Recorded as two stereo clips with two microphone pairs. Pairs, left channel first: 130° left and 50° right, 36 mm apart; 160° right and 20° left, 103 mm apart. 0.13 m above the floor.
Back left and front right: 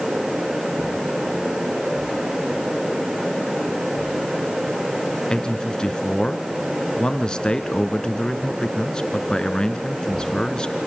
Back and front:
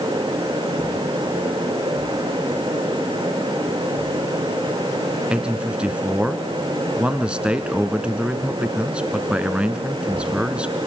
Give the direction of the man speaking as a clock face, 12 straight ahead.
9 o'clock.